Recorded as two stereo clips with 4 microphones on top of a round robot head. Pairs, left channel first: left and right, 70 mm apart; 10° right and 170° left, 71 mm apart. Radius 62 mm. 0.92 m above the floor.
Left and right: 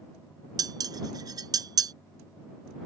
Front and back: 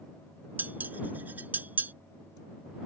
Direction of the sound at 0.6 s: 115° right.